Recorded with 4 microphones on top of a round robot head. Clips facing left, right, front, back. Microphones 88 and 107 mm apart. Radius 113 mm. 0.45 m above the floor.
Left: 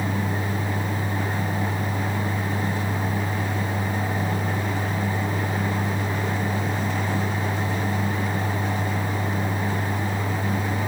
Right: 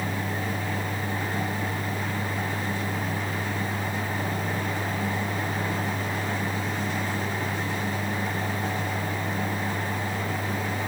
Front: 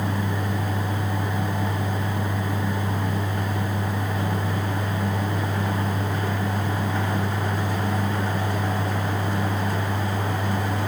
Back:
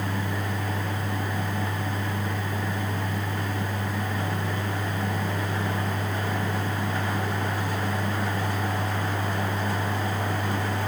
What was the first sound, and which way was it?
Only background noise.